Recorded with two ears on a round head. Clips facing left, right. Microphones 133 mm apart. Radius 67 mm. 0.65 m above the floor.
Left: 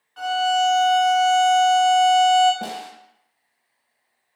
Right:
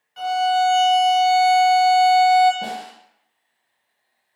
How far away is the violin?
About 0.9 m.